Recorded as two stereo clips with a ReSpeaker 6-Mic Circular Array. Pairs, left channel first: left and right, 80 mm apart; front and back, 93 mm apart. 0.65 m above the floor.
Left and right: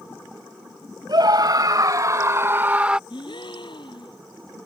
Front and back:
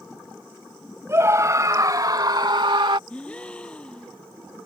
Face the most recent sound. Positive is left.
turn(degrees=80)